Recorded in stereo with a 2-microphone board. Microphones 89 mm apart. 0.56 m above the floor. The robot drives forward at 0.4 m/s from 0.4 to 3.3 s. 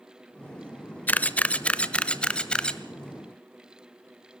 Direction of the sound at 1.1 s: 20° left (ahead or behind).